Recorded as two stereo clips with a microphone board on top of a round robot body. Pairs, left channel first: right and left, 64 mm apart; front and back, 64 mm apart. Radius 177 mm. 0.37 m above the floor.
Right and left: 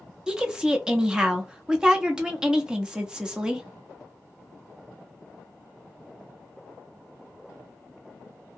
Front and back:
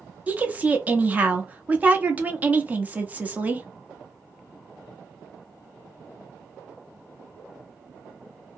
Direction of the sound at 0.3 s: 155° left.